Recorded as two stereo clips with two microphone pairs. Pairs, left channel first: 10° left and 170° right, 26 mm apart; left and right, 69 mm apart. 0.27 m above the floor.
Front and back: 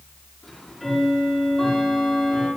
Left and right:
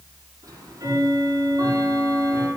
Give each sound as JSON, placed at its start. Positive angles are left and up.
{"t": 0.4, "sound": "ticking", "azimuth_deg": -55, "distance_m": 7.5}